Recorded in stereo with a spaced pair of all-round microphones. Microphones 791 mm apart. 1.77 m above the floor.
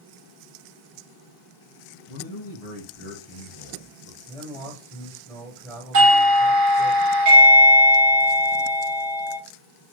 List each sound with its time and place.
2.1 s a man speaking: 45° left (ahead or behind), 1.0 m
4.3 s a man speaking: 5° right (ahead or behind), 1.5 m
5.9 s a doorbell: 70° right (ahead or behind), 0.9 m